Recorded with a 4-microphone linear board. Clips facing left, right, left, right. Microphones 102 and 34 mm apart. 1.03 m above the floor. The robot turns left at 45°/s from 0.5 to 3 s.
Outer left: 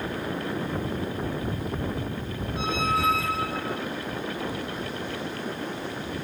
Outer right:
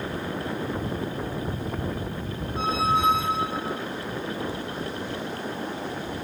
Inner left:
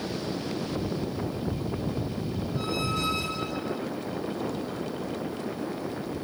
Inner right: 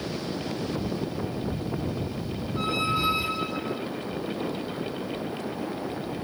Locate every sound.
2.6 s a squeak: 40° right (ahead or behind); by 3.8 s 20° right (ahead or behind)